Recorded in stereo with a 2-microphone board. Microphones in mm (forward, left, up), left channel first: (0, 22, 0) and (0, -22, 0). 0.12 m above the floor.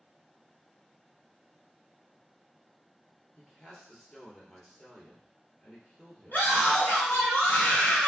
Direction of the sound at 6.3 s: 45° left (ahead or behind).